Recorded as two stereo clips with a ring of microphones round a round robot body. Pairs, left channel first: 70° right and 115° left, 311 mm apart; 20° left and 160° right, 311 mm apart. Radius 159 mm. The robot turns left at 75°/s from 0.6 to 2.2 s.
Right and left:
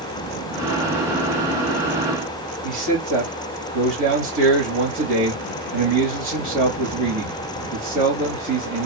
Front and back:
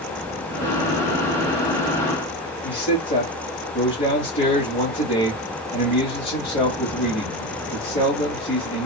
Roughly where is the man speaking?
Left.